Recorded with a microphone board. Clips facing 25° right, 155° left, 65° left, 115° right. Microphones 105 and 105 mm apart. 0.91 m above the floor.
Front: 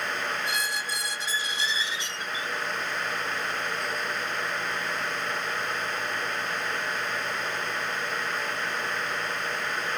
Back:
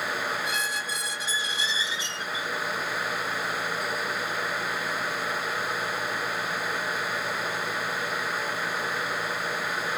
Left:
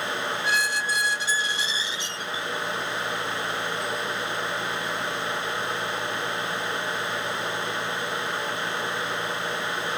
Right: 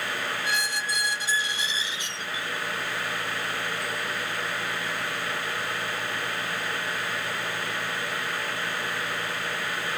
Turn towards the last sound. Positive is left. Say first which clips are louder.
# even, left 3 dB
turn(degrees=-115)